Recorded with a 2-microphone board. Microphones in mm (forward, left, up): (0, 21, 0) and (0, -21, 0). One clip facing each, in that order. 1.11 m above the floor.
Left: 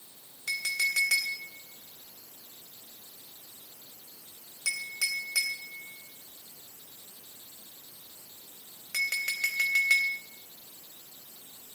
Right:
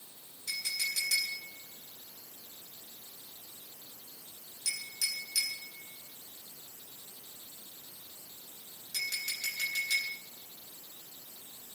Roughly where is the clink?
Left.